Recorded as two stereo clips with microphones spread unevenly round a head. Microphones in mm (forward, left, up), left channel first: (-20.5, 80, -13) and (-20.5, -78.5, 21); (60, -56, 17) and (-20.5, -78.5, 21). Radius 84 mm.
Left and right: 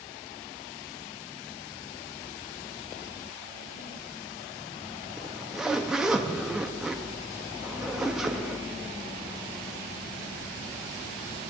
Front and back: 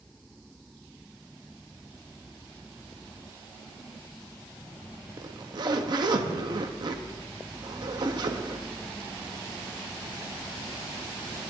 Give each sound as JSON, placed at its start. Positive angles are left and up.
{"t": 5.2, "sound": "a zipper", "azimuth_deg": -165, "distance_m": 0.8}